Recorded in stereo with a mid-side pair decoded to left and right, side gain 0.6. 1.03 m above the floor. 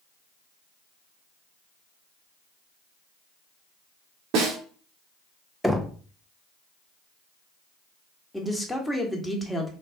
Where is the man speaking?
5° left, 1.3 m.